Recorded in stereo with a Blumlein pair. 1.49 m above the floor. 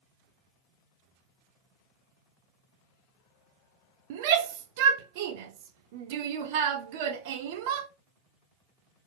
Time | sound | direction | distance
4.1 | a shout | 50° right | 0.6 m